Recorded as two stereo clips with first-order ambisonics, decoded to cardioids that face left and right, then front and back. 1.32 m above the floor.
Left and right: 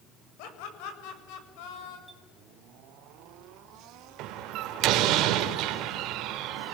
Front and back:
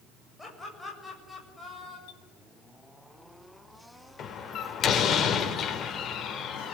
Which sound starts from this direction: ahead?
A clink, at 2.1 s.